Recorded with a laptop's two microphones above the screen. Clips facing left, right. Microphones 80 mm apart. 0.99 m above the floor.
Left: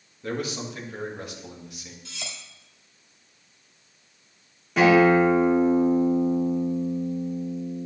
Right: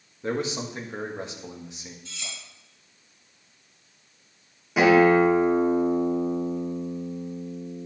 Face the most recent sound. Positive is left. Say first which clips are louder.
# even
turn(degrees=-10)  # may be behind; listen again after turning